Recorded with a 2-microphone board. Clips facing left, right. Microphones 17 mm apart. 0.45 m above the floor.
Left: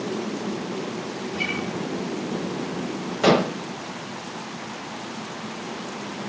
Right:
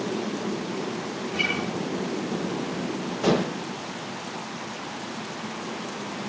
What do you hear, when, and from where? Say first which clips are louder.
1.3 s a guitar: right 2 dB; 55° right (ahead or behind), 6 m
3.2 s dishes clattering: left 5 dB; 65° left (ahead or behind), 1.4 m